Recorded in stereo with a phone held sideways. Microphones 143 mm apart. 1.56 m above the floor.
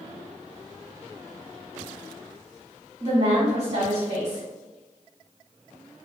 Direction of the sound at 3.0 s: 35° right (ahead or behind).